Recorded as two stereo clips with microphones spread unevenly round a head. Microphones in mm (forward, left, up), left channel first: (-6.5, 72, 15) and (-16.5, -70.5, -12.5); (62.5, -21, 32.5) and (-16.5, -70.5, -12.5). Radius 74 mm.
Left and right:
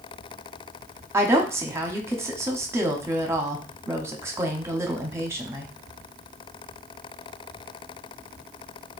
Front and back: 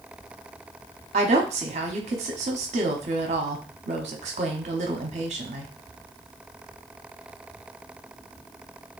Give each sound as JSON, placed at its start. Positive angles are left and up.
{"t": 1.1, "sound": "a woman speaking", "azimuth_deg": -170, "distance_m": 0.8}